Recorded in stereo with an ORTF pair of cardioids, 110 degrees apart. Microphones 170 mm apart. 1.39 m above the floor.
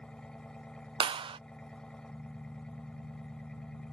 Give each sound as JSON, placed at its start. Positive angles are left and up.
{"t": 0.0, "sound": "an engine running", "azimuth_deg": 5}
{"t": 1.0, "sound": "a clap", "azimuth_deg": -30}